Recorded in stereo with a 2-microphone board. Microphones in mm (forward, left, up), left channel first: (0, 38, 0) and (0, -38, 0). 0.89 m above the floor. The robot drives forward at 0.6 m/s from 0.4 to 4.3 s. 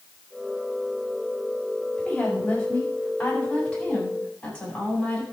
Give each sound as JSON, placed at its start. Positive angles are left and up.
{"t": 2.0, "sound": "a woman speaking", "side_deg": 15, "distance_m": 6.0}